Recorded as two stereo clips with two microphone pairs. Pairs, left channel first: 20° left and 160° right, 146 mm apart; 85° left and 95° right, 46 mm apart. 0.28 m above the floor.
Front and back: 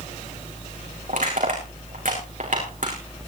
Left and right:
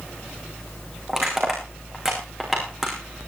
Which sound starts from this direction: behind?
Crushing, at 1.1 s.